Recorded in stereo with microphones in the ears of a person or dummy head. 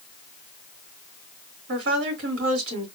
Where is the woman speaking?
80° right, 3.5 m.